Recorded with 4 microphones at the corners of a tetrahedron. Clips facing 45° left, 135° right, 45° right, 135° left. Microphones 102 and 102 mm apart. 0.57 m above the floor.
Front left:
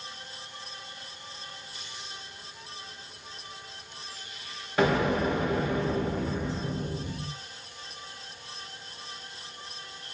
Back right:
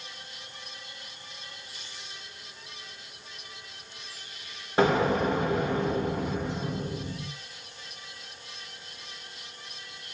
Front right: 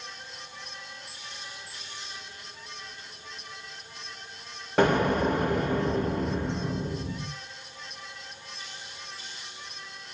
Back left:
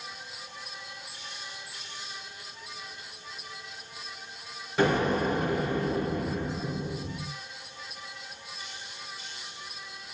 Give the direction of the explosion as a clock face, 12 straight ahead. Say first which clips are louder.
Back right 1 dB, front right 2 dB; 3 o'clock.